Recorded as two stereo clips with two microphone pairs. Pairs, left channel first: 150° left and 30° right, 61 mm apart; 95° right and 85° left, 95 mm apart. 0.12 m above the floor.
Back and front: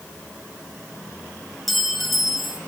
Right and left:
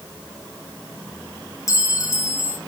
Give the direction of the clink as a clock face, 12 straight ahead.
4 o'clock.